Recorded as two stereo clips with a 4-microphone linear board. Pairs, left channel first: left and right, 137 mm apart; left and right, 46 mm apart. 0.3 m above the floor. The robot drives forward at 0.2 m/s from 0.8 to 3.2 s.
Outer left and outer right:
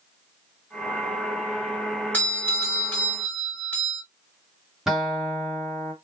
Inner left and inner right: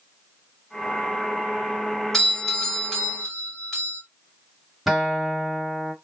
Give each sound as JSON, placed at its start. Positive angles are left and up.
{"t": 2.1, "sound": "a doorbell", "side_deg": 10, "distance_m": 2.0}
{"t": 4.9, "sound": "a guitar", "side_deg": -5, "distance_m": 1.4}